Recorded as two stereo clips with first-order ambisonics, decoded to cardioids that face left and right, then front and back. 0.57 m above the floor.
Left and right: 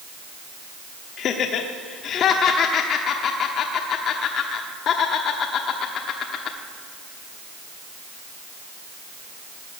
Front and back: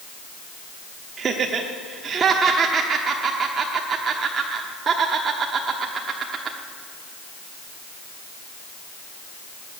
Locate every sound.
1.2 s laughter: 125° left, 1.0 m